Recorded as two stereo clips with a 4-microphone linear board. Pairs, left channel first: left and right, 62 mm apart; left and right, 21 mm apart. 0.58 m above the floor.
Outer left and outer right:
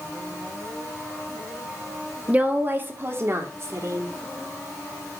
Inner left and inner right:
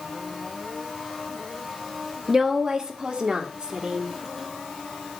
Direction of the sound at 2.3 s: 25° right (ahead or behind).